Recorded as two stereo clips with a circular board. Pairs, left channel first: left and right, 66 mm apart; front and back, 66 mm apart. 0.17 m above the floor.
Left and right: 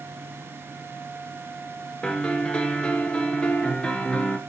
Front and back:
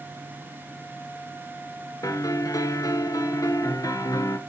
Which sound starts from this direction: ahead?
A piano, at 2.0 s.